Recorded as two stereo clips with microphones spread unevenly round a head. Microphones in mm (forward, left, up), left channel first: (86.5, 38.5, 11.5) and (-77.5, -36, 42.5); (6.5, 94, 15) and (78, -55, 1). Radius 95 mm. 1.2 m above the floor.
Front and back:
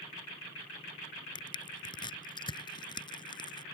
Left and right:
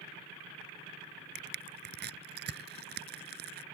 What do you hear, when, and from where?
1.4 s crushing: 45° right